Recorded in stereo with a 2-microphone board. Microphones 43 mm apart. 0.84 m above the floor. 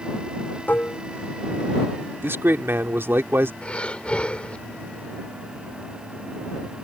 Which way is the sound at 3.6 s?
30° left (ahead or behind).